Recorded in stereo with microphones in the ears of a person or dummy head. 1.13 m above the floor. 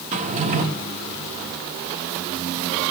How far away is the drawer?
About 1.1 m.